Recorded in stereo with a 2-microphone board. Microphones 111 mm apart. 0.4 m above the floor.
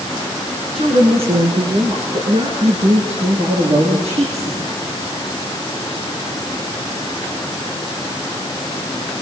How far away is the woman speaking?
About 5.5 m.